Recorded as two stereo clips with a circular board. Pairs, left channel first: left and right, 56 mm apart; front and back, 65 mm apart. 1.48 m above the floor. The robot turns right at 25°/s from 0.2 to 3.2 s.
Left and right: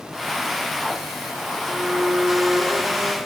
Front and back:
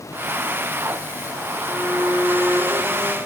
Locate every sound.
1.7 s a violin: 40° right, 2.5 m; by 3.2 s straight ahead, 2.5 m